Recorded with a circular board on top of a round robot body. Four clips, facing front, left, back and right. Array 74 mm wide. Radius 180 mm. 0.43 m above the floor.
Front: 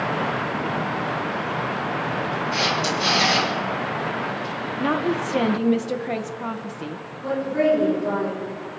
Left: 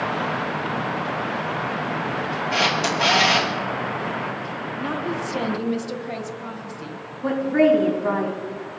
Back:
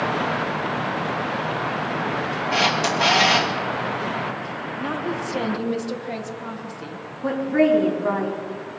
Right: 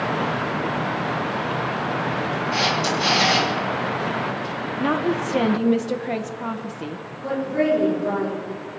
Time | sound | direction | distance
2.5 | a camera shutter | 135° left | 3.5 m
4.8 | a woman speaking | 50° right | 1.3 m
7.2 | a woman speaking | 130° left | 3.5 m